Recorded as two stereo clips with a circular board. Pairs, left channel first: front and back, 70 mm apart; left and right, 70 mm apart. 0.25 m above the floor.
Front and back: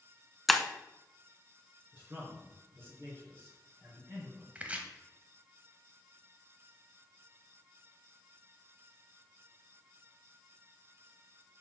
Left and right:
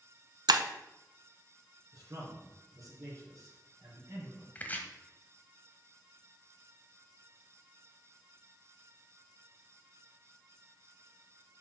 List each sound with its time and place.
0.5 s breaking glass: 90° right, 0.6 m
1.9 s a man speaking: 125° right, 3.5 m
4.5 s chopping: 130° left, 0.9 m